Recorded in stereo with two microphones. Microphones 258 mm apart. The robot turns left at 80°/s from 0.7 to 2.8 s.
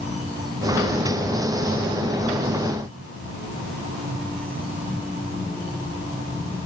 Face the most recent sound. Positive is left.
No sound to turn to.